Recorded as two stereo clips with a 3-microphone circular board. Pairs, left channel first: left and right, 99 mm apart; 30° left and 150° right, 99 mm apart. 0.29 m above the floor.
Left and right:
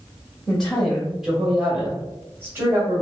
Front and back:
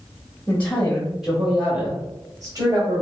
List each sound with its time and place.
0.5 s a woman speaking: 25° left, 1.4 m; by 3.0 s 140° right, 1.9 m